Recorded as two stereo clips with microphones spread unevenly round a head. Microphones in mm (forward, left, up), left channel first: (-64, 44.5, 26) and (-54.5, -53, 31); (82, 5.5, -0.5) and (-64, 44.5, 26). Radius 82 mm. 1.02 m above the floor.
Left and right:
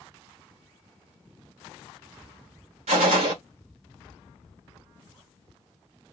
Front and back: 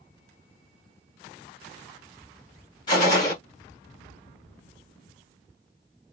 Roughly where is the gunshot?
Right.